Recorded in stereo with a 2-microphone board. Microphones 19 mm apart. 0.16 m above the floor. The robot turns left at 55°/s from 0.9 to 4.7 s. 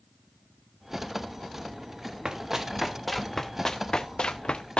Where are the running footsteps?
40° right (ahead or behind), 2.5 m; by 4.8 s 70° left (ahead or behind), 1.0 m.